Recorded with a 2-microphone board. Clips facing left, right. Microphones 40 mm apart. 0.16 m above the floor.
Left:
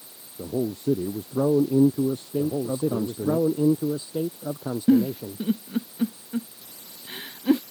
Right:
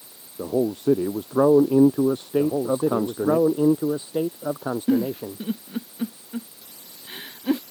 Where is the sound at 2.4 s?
40° right (ahead or behind).